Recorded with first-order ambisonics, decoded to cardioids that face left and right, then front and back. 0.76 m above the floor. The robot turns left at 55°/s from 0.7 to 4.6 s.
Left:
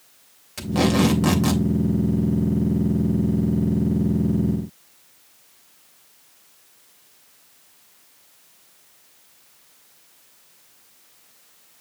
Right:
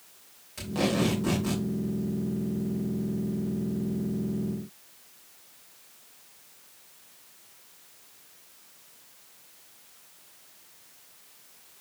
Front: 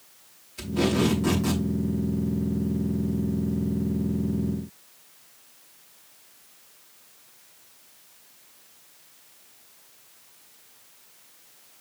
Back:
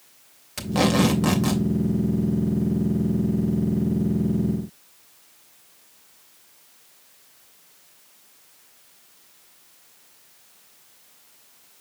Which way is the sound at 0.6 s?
155° left.